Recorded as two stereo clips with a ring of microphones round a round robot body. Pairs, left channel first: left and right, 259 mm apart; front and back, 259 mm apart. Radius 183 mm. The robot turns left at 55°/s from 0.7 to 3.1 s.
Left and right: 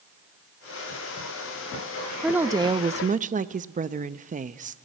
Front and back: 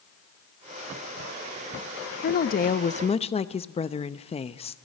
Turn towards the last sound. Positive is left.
turn(degrees=-50)